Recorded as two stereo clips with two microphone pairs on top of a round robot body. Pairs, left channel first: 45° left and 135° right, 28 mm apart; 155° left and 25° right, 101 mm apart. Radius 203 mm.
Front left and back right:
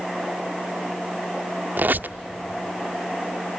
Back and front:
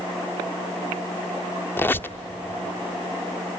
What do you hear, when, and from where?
1.8 s a squeak: 135° right, 0.7 m